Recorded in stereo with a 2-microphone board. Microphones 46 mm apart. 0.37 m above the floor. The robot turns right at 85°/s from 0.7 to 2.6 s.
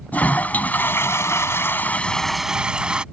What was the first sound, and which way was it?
A toilet flushing, 40° left.